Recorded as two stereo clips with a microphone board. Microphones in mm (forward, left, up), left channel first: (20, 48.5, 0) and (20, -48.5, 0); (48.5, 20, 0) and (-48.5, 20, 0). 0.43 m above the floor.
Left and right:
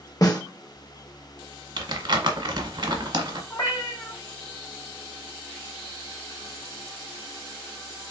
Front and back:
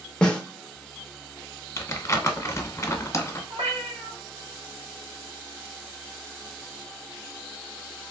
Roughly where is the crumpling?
Ahead right.